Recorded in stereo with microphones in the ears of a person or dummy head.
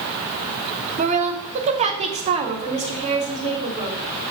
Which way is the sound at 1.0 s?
35° right (ahead or behind).